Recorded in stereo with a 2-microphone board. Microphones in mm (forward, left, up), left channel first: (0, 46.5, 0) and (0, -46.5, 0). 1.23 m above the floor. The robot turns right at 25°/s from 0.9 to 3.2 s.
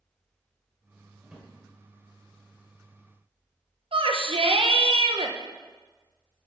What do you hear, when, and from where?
1.2 s a drawer: 5° right (ahead or behind), 1.6 m; by 1.5 s 10° right (ahead or behind), 1.6 m
3.9 s a shout: 70° right (ahead or behind), 1.0 m